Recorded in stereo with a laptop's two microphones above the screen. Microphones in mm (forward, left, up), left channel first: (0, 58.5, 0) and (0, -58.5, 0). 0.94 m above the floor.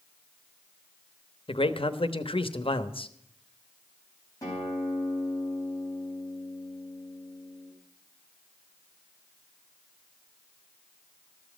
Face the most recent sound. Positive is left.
turn(degrees=25)  # may be behind; listen again after turning